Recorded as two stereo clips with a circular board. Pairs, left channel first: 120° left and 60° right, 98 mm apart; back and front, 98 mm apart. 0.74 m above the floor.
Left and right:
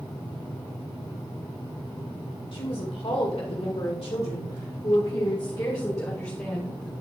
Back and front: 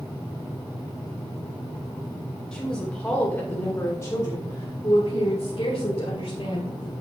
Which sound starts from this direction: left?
A woman speaking, at 2.5 s.